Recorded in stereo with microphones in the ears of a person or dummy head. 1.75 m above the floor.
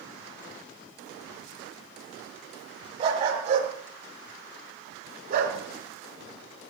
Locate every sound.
3.0 s a dog barking: 30° right (ahead or behind), 4.5 m; by 5.6 s 50° right (ahead or behind), 3 m